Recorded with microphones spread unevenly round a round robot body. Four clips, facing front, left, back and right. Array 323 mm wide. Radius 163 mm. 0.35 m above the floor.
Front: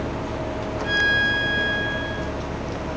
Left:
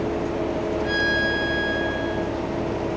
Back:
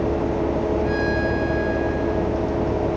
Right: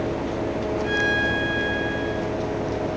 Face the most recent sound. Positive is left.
turn(degrees=15)